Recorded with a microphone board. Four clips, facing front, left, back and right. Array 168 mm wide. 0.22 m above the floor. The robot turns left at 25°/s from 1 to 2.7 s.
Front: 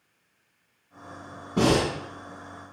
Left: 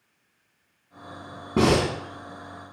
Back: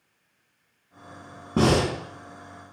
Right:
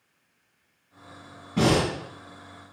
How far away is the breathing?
About 0.9 m.